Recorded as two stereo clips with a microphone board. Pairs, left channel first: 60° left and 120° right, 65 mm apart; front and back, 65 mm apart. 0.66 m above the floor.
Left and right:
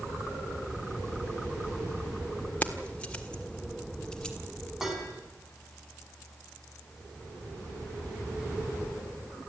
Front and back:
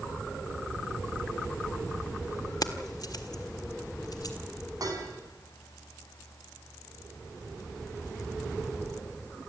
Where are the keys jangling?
5° right, 1.5 m; by 4.3 s 20° right, 3 m.